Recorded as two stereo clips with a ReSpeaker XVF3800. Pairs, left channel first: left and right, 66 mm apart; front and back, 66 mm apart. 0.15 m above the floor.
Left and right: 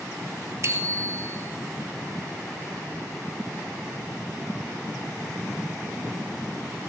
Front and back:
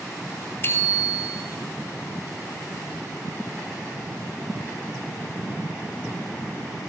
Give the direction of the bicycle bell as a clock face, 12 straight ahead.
2 o'clock.